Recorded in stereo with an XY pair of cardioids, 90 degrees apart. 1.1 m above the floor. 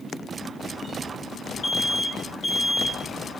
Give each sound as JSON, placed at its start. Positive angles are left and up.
{"t": 1.6, "sound": "an alarm", "azimuth_deg": 25, "distance_m": 5.0}